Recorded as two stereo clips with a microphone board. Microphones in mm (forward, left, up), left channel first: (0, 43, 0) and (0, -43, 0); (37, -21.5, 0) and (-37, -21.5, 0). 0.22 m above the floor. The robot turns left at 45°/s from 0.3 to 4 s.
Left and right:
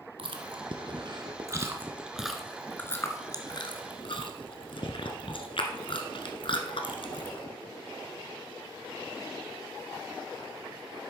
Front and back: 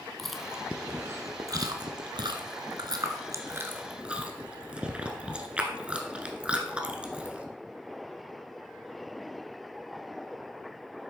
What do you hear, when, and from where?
0.2 s chewing: 90° right, 1.1 m; by 7.4 s 105° left, 1.1 m